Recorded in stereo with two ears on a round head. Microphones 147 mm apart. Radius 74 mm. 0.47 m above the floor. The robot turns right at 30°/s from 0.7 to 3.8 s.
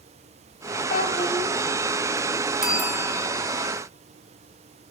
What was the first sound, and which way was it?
A child speaking, 45° left (ahead or behind).